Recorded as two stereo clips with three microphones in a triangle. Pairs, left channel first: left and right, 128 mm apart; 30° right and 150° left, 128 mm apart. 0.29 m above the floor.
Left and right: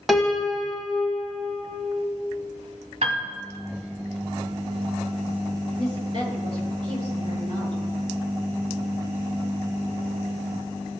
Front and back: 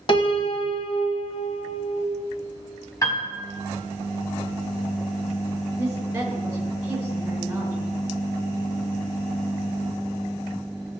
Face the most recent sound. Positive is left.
turn(degrees=-135)